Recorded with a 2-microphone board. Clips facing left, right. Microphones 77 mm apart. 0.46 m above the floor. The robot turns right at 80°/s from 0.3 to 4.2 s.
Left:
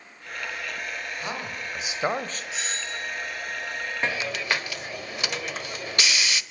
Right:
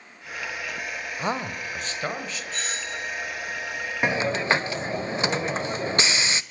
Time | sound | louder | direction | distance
1.2 | a man speaking | right 4 dB | 40° right | 2 m
2.5 | a doorbell | right 1 dB | 170° left | 3 m
4.0 | a hiss | right 6 dB | 15° right (ahead or behind) | 0.7 m